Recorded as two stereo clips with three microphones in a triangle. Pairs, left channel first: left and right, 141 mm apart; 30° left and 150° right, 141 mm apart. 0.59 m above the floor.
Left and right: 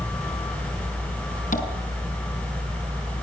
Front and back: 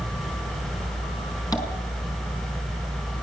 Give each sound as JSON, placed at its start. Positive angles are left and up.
{"t": 1.5, "sound": "tapping", "azimuth_deg": 95, "distance_m": 5.0}